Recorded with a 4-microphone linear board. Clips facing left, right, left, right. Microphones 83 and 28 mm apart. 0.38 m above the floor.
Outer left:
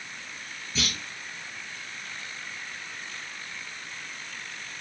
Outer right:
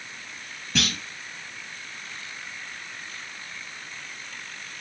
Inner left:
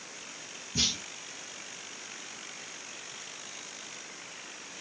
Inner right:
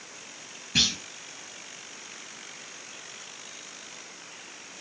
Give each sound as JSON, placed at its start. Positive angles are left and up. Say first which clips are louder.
{"t": 0.8, "sound": "a clunk", "louder": "outer right 5 dB, inner right 6 dB", "side_deg": -70, "distance_m": 5.0}